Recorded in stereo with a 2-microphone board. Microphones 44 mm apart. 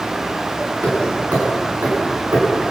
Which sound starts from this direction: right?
Hammering, at 0.8 s.